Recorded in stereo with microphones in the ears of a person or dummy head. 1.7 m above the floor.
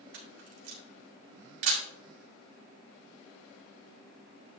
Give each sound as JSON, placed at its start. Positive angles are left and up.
{"t": 0.1, "sound": "a camera shutter", "side_deg": -60, "distance_m": 2.0}